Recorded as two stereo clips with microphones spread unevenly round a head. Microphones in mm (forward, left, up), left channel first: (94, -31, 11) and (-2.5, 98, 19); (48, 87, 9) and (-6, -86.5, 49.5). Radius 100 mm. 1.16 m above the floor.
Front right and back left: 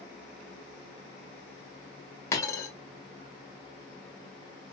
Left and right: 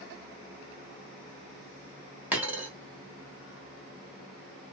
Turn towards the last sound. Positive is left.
turn(degrees=-105)